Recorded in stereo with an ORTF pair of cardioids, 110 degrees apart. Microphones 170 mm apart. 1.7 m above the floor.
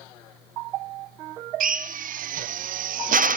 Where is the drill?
55° right, 0.7 m.